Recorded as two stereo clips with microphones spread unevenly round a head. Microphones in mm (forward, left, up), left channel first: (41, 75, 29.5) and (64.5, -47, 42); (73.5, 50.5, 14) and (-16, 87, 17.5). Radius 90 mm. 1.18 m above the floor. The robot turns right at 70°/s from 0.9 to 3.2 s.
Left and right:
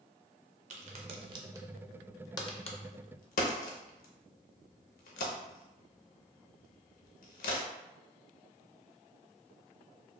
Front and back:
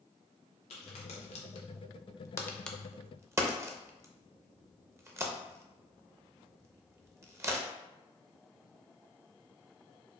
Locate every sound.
0.7 s a crack: 65° right, 0.6 m; by 7.7 s 100° left, 0.6 m